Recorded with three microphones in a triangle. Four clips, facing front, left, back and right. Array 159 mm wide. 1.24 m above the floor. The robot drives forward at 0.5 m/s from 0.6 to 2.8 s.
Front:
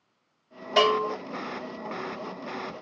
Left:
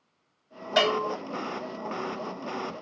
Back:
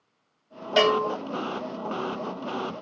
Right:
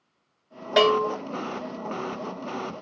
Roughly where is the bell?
Right.